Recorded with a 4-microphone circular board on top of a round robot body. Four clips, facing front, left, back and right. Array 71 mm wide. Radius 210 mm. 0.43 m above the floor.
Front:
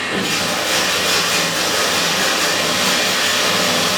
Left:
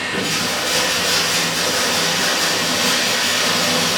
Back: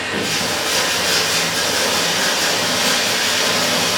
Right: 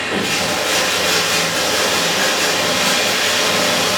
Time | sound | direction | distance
0.0 | running water | 80° right | 3 m